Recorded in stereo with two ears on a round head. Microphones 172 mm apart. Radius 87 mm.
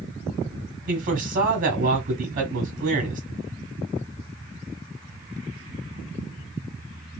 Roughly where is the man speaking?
Right.